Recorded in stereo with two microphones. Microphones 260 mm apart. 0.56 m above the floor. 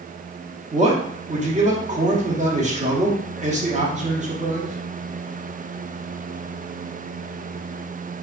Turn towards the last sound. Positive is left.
turn(degrees=-25)  # may be behind; listen again after turning